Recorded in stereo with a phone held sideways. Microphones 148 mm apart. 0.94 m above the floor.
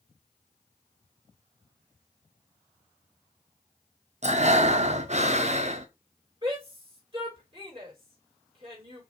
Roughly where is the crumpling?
No crumpling in this recording.